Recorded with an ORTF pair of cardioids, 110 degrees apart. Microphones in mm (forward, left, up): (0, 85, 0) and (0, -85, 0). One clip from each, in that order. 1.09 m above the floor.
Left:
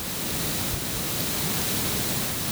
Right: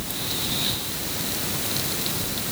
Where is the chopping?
I don't hear chopping.